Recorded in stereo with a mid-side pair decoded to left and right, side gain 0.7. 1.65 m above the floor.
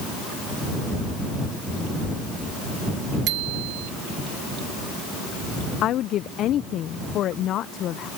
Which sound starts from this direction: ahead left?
A woman speaking, at 5.8 s.